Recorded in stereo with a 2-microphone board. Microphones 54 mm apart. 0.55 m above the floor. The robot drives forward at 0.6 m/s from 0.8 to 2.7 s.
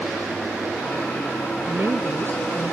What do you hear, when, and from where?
1.7 s a woman speaking: 55° right (ahead or behind)